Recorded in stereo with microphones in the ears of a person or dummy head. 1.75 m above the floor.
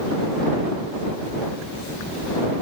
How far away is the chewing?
I don't hear chewing.